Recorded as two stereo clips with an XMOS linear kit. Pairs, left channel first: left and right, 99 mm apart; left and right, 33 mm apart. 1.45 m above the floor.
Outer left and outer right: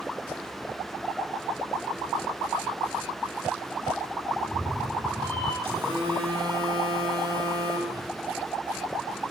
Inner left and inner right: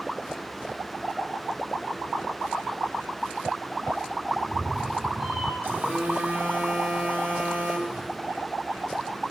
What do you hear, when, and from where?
4.3 s a cat meowing: 40° right (ahead or behind), 8 m; by 5.5 s 45° right (ahead or behind), 8 m
5.6 s a phone buzzing: 60° right (ahead or behind), 4.5 m